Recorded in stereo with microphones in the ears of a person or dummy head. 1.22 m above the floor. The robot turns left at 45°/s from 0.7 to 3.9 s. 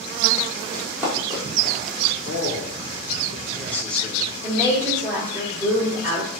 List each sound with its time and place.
0.7 s running footsteps: 5° left (ahead or behind), 2.5 m; by 2.1 s 60° right (ahead or behind), 4 m
2.2 s a man speaking: 75° left, 1.1 m; by 4.4 s straight ahead, 1.1 m
4.4 s a woman speaking: 20° right (ahead or behind), 3 m